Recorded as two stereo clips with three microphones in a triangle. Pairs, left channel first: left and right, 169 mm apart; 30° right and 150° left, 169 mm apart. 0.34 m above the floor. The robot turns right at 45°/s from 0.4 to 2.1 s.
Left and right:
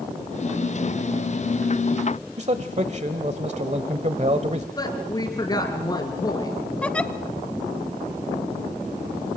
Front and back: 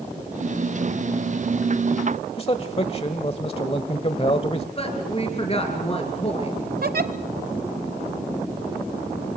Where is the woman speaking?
25° left, 4.5 m.